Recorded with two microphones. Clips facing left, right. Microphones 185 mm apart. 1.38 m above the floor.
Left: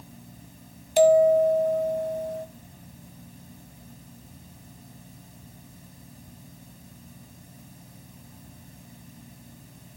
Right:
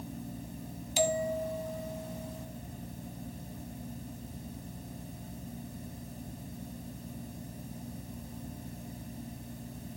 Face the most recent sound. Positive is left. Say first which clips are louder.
# left 14 dB
turn(degrees=60)  # may be behind; listen again after turning